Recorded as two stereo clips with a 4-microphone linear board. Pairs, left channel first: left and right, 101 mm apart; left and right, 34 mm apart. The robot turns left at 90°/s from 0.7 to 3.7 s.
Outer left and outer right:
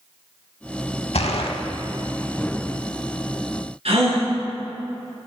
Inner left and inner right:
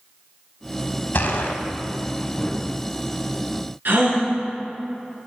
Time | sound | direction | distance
1.1 | a gunshot | 95° left | 0.5 m
3.9 | a gasp | 75° right (ahead or behind) | 1.9 m